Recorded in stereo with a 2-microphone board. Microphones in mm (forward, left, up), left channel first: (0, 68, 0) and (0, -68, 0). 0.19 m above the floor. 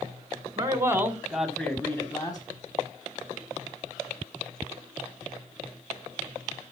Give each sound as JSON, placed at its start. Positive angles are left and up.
{"t": 0.6, "sound": "a man speaking", "side_deg": -25, "distance_m": 1.5}